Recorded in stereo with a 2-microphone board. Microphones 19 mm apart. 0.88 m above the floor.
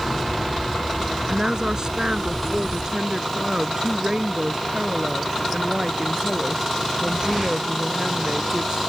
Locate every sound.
1.3 s a woman speaking: 35° right (ahead or behind); by 8.8 s 40° right (ahead or behind)